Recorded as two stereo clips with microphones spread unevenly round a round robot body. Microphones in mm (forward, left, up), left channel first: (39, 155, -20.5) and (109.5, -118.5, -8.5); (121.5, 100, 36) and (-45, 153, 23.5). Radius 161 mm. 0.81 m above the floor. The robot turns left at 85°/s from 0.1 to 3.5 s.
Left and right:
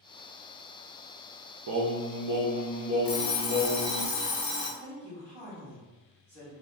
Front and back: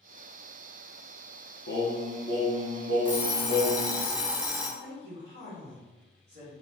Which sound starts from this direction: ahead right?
Singing, at 1.7 s.